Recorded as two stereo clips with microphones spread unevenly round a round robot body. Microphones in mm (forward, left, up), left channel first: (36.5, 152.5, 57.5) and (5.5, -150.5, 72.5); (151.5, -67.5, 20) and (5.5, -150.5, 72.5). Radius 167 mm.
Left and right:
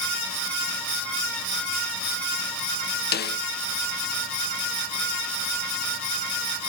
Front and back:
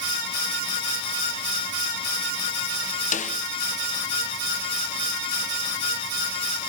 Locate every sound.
3.1 s a snare drum: 30° left, 0.6 m